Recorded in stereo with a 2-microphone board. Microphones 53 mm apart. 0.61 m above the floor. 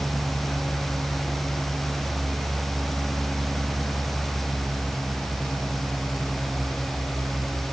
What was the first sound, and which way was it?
Only background noise.